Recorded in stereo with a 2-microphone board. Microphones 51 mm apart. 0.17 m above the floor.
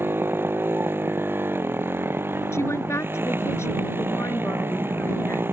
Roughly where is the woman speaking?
Left.